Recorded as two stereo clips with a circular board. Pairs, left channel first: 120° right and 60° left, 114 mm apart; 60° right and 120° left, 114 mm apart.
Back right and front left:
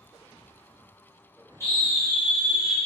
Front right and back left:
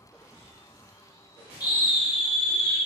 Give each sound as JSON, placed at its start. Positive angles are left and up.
{"t": 1.6, "sound": "a scream", "azimuth_deg": -80, "distance_m": 1.0}